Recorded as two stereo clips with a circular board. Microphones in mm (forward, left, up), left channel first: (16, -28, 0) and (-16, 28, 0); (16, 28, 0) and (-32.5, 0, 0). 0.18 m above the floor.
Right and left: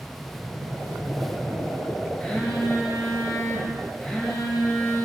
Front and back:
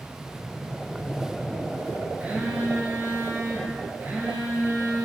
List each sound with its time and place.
2.2 s a phone buzzing: 135° right, 1.5 m